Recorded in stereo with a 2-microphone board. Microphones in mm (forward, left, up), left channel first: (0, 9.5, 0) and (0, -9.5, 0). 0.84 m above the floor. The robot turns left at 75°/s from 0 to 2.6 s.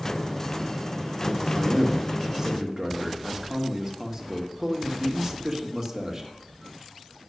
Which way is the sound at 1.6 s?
85° right.